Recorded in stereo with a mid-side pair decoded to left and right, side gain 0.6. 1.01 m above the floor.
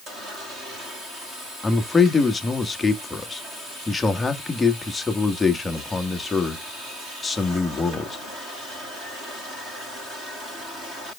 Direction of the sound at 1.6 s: 15° left.